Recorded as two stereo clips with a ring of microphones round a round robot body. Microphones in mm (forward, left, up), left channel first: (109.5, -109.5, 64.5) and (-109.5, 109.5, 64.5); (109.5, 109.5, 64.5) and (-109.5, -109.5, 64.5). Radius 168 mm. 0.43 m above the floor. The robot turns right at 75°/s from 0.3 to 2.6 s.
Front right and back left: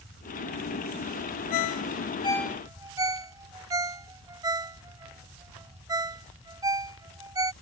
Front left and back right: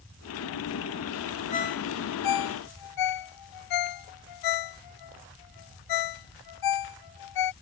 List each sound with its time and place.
1.5 s a ringtone: 25° right; by 7.5 s 55° left